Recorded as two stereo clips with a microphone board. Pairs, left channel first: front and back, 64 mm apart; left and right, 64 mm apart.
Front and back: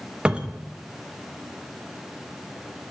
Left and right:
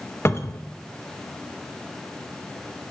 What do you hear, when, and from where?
0.2 s a cupboard door: 110° left, 0.7 m